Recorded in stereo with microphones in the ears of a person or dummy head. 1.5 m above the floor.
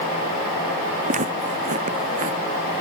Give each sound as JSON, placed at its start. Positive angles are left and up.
{"t": 1.1, "sound": "footsteps", "side_deg": -30}